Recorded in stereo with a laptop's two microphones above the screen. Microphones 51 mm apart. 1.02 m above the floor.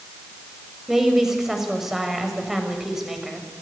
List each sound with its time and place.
0.9 s a woman speaking: 5° right (ahead or behind), 6.5 m